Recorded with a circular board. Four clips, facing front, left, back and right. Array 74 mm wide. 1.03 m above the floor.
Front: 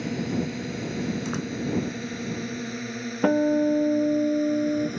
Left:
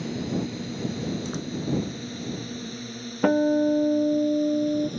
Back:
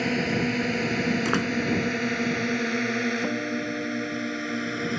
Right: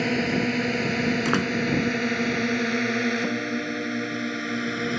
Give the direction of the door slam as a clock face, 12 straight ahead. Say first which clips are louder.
Right 9 dB, back 5 dB; 4 o'clock.